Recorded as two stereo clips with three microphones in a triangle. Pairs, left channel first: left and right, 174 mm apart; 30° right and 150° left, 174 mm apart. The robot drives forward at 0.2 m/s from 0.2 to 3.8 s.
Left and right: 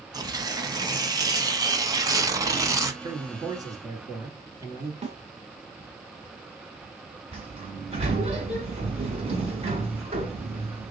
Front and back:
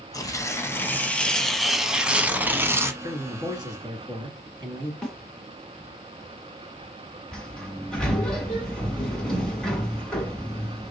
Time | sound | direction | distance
0.1 | tearing paper | 65° right | 0.8 m
3.0 | a man speaking | 150° right | 1.5 m
5.0 | a snare drum | 115° right | 1.4 m
7.3 | a sliding door | 115° right | 1.4 m